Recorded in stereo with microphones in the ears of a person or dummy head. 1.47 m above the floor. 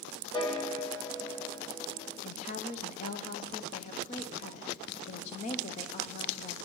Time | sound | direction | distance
0.3 | a piano | 25° left (ahead or behind) | 0.9 m
2.2 | a woman speaking | 45° left (ahead or behind) | 0.6 m